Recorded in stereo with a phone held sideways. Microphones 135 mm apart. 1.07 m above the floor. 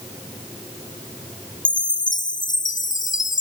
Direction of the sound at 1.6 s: 70° left (ahead or behind).